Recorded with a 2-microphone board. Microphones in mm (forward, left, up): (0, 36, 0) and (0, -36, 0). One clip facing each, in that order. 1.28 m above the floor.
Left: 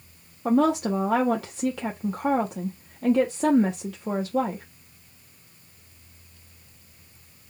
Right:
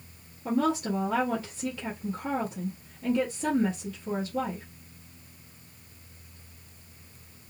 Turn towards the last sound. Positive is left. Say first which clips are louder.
# left 5 dB
turn(degrees=80)